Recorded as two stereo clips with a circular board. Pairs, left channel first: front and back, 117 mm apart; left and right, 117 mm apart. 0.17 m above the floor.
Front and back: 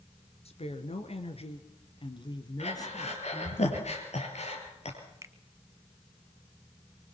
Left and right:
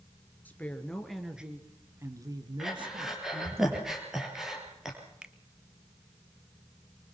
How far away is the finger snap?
About 1.1 m.